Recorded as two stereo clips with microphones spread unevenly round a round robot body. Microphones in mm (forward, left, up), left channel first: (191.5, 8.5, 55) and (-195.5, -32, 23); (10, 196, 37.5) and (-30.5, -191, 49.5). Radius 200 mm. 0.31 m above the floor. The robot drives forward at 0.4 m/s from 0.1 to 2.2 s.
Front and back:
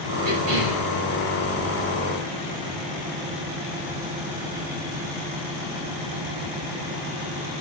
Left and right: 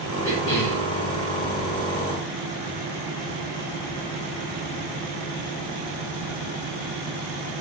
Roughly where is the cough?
Behind left.